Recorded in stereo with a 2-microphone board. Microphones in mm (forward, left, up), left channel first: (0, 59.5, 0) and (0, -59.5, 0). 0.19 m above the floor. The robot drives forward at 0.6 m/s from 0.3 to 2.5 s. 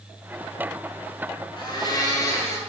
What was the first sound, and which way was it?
A blender, 40° left (ahead or behind).